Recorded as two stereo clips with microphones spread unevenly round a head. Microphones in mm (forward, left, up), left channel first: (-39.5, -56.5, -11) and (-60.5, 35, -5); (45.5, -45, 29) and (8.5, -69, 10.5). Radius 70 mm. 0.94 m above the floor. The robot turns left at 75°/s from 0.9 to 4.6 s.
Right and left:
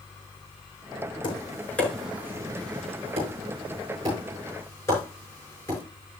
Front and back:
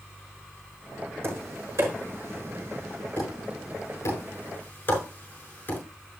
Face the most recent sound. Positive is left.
turn(degrees=-5)